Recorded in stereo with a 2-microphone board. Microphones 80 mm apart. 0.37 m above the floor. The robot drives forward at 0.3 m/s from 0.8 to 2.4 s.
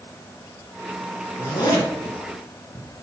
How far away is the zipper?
About 3 m.